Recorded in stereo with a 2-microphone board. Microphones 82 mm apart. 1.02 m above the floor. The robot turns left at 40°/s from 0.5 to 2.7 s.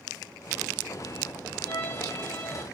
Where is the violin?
65° left, 0.9 m; by 2.6 s 30° left, 0.9 m.